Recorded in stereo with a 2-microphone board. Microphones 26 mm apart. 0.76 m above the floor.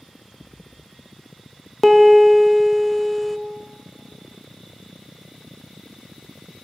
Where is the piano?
5° left (ahead or behind), 0.6 m.